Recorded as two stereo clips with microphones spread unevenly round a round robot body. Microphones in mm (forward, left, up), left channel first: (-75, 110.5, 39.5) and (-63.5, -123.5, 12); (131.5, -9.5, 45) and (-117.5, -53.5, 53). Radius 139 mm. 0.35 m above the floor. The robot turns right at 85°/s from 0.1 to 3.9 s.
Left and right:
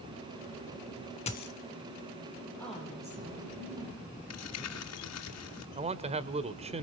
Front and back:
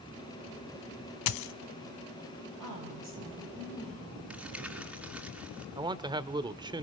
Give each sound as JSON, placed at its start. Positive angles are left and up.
{"t": 1.3, "sound": "a dropped coin", "azimuth_deg": 25, "distance_m": 0.7}
{"t": 2.6, "sound": "a woman speaking", "azimuth_deg": 175, "distance_m": 9.5}
{"t": 4.3, "sound": "crumpling", "azimuth_deg": 105, "distance_m": 2.5}
{"t": 5.8, "sound": "a man speaking", "azimuth_deg": -105, "distance_m": 1.2}